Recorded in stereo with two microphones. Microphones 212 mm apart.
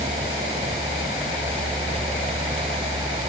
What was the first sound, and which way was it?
Only background noise.